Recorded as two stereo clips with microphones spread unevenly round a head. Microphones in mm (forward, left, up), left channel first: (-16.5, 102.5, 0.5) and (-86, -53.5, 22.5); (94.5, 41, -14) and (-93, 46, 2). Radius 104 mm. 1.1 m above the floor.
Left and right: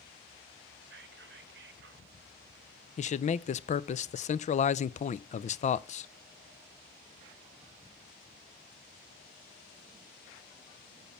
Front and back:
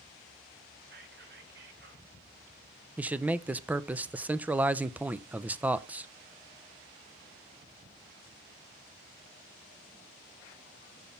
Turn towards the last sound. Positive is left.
turn(degrees=95)